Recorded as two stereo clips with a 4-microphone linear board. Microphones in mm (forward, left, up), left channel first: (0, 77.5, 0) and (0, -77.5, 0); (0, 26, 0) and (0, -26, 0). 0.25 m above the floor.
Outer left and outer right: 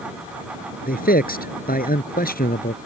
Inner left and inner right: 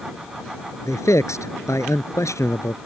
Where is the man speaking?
70° left (ahead or behind).